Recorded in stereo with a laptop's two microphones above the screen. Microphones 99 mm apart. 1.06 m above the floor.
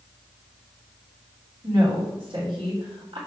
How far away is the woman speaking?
About 3 m.